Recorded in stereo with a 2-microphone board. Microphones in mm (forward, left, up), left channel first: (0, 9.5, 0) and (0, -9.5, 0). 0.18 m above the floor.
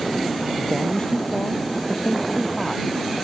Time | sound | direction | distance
0.6 | a man speaking | 40° left (ahead or behind) | ?